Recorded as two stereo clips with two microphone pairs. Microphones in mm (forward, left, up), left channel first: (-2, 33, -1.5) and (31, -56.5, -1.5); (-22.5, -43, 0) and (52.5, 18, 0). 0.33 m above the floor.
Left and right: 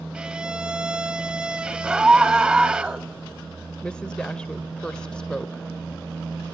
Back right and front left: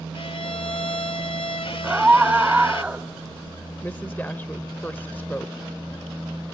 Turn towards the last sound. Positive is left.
turn(degrees=180)